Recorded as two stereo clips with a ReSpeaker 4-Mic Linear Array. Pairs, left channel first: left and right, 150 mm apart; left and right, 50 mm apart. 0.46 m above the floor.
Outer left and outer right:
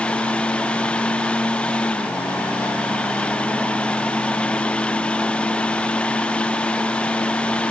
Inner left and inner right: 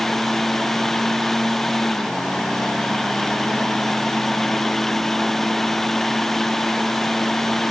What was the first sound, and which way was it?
Only background noise.